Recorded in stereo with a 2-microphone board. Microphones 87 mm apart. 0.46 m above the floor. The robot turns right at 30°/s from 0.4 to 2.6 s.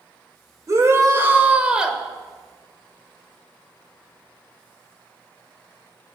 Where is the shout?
45° right, 1.9 m; by 2.0 s 5° right, 1.9 m.